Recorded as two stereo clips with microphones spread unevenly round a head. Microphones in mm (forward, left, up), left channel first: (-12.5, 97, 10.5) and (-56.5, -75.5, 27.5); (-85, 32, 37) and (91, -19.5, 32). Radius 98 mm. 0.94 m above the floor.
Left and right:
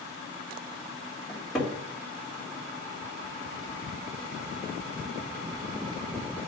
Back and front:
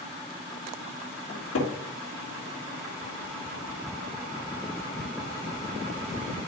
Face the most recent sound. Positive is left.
turn(degrees=160)